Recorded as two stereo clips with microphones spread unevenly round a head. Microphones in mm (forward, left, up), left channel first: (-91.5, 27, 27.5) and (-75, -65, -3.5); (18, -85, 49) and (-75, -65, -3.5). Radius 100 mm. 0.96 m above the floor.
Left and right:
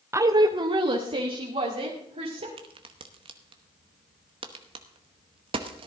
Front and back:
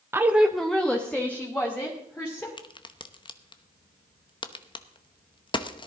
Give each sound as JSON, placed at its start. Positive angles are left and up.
{"t": 0.1, "sound": "a woman speaking", "azimuth_deg": -135, "distance_m": 0.7}
{"t": 2.6, "sound": "a crack", "azimuth_deg": -60, "distance_m": 0.9}